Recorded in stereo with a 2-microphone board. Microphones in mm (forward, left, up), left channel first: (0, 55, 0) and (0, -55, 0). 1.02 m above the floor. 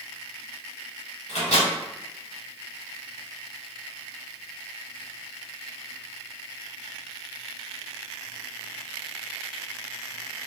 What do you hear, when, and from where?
1.3 s a microwave: 75° left (ahead or behind), 1.4 m